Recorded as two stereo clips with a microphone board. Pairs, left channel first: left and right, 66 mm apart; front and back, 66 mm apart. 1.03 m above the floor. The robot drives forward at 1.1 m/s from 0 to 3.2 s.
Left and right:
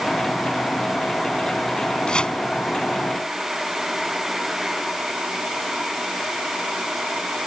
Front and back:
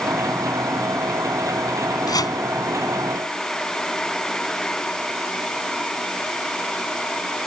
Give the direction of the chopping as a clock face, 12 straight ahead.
12 o'clock.